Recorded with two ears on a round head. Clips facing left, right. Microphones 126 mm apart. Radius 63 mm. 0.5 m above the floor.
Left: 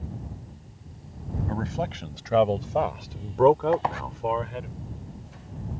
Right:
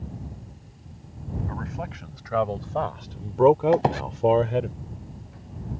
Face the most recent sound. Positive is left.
turn(degrees=-35)  # may be behind; listen again after turning